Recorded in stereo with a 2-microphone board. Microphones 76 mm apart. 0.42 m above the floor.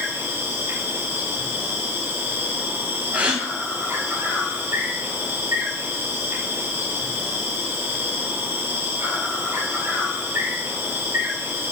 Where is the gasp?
20° right (ahead or behind), 5 m.